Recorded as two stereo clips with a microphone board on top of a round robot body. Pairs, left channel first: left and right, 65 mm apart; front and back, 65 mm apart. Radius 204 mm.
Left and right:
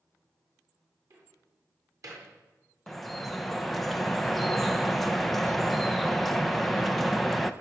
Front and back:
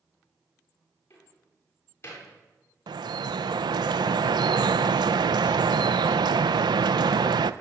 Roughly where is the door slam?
Ahead right.